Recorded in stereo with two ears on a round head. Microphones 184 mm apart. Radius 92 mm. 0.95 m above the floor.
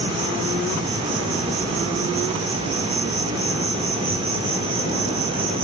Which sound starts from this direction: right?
An insect, at 0.0 s.